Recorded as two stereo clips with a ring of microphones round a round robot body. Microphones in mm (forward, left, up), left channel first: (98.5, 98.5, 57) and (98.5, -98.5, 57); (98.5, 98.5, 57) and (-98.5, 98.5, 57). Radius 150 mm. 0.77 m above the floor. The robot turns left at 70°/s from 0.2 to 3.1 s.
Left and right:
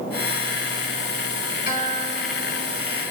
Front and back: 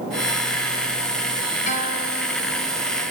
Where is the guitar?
55° left, 1.3 m; by 2.8 s 25° right, 1.3 m.